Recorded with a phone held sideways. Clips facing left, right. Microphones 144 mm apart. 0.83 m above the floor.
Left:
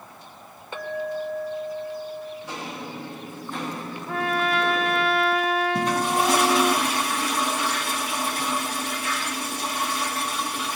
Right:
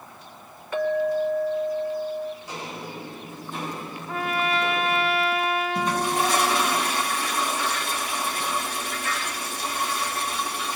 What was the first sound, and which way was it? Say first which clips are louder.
A clink: right 6 dB; 25° left (ahead or behind).